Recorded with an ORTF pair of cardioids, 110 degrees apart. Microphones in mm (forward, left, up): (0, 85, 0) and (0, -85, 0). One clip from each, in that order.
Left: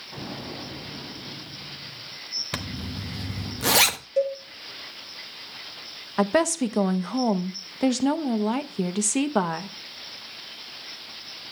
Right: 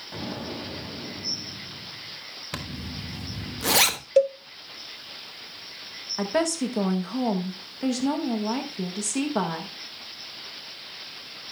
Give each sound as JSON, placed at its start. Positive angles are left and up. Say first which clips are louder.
{"t": 0.1, "sound": "an explosion", "louder": "right 2 dB", "azimuth_deg": -30, "distance_m": 5.5}
{"t": 2.5, "sound": "a zipper", "louder": "left 2 dB", "azimuth_deg": 15, "distance_m": 0.9}
{"t": 4.2, "sound": "a cowbell", "louder": "right 4 dB", "azimuth_deg": -50, "distance_m": 0.7}
{"t": 6.2, "sound": "a woman speaking", "louder": "left 4 dB", "azimuth_deg": 40, "distance_m": 0.8}